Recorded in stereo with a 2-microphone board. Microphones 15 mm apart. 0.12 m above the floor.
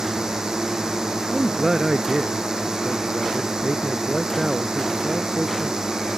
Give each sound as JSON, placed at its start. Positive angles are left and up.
{"t": 0.0, "sound": "a drone", "side_deg": -35}
{"t": 1.3, "sound": "a man speaking", "side_deg": -35}